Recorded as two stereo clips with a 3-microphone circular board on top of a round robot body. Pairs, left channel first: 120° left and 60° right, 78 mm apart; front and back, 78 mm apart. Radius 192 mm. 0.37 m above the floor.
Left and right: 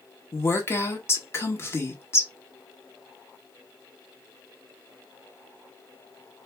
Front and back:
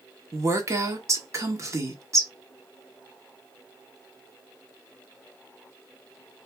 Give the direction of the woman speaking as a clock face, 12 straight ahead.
7 o'clock.